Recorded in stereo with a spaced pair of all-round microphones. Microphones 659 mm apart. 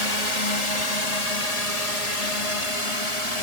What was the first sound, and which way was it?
A drone, 65° left (ahead or behind).